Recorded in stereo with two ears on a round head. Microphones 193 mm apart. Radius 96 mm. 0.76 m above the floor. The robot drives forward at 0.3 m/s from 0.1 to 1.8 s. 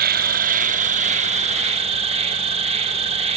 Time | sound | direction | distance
0.0 | an insect | 45° right (ahead or behind) | 0.9 m